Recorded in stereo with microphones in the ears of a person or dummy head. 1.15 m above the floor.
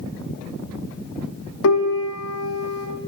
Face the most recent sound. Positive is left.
turn(degrees=80)